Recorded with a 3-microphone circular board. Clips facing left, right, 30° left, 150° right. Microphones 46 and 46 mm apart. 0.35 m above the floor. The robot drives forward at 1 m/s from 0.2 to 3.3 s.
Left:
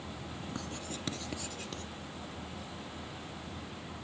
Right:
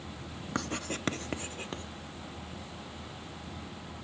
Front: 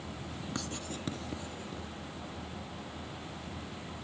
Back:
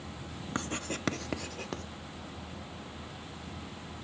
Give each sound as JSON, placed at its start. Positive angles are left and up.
{"t": 0.6, "sound": "writing", "azimuth_deg": -90, "distance_m": 0.7}